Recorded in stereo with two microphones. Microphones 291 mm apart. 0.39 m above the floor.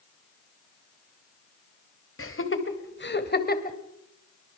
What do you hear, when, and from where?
2.2 s laughter: 45° left (ahead or behind), 2.5 m; by 3.8 s 30° left (ahead or behind), 2.5 m